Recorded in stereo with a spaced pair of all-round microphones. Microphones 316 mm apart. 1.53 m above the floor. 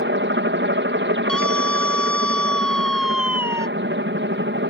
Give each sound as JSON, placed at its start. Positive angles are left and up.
{"t": 0.0, "sound": "a helicopter", "side_deg": -35}
{"t": 1.3, "sound": "a scream", "side_deg": 75}